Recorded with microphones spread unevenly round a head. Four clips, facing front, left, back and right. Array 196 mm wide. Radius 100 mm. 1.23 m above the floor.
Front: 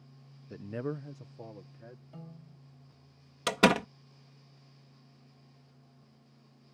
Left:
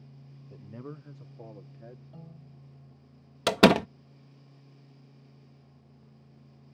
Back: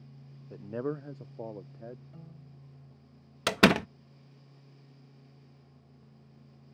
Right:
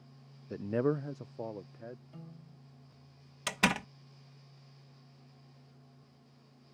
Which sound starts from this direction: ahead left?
A piano, at 2.1 s.